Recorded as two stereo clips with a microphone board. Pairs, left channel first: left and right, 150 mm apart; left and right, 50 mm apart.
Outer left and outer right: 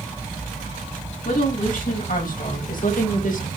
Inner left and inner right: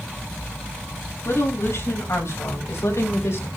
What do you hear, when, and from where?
1.2 s a woman speaking: 75° left (ahead or behind), 4.5 m; by 3.5 s 65° left (ahead or behind), 2.5 m